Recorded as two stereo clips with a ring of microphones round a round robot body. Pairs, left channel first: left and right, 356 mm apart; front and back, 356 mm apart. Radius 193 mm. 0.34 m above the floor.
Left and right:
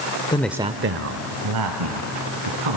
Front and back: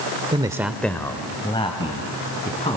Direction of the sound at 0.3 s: 135° left.